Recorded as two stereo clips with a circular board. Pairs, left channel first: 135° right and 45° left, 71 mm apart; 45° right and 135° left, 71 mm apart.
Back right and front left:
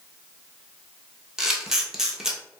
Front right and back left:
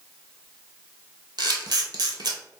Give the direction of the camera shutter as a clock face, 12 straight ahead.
8 o'clock.